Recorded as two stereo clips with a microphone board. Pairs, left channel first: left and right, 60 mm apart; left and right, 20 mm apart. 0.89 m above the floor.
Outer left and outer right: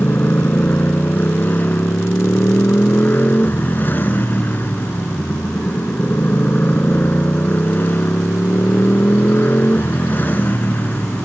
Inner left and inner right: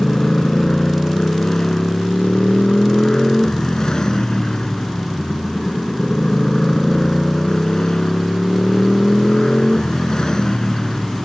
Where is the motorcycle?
35° left (ahead or behind).